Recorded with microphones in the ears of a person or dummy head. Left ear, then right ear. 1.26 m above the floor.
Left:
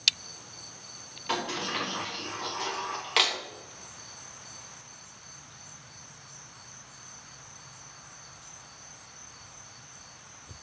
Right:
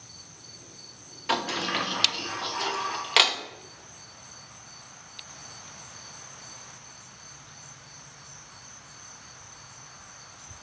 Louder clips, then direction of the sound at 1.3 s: Right 4 dB; 15° right (ahead or behind).